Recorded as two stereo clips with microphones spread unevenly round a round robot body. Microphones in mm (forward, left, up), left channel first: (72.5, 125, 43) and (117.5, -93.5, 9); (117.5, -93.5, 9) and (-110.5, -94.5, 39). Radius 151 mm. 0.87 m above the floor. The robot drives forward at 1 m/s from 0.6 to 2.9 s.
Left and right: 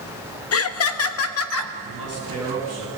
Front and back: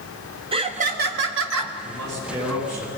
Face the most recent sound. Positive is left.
turn(degrees=140)